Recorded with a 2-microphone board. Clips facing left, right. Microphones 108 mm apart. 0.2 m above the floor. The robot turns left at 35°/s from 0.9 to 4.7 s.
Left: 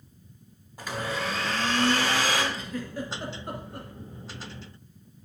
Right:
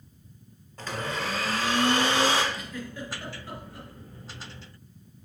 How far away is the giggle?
About 1.7 m.